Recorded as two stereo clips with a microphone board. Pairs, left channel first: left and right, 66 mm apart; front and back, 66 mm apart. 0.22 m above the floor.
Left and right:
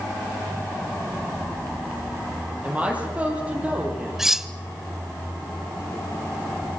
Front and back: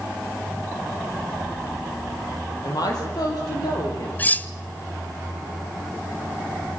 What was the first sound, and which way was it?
A woman speaking, 20° right.